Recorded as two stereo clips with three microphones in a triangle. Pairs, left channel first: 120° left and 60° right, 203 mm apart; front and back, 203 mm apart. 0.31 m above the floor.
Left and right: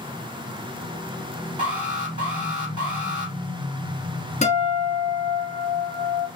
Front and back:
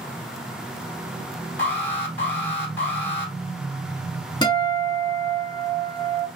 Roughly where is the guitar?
Left.